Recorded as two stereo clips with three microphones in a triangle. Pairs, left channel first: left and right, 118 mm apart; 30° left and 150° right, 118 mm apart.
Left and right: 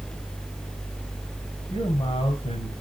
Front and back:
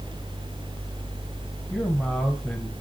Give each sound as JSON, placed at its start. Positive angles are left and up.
{"t": 1.7, "sound": "a man speaking", "azimuth_deg": 115, "distance_m": 1.4}